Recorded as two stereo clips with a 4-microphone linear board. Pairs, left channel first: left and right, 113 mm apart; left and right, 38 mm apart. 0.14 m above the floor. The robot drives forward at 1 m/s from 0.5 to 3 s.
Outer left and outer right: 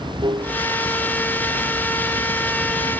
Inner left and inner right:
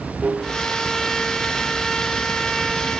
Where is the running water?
40° right (ahead or behind); by 3.0 s 50° right (ahead or behind).